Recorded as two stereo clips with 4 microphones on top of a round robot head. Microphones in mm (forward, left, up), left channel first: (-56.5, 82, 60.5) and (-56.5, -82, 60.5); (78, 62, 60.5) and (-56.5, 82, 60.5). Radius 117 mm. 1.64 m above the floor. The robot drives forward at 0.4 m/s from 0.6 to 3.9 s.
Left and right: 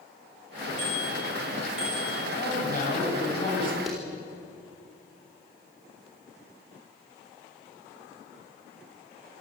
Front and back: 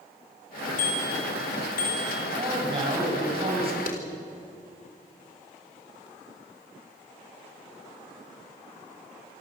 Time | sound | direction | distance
0.8 | a bicycle bell | 5° right | 5.5 m
2.3 | a man speaking | 125° left | 8.5 m
3.9 | a clap | straight ahead | 4 m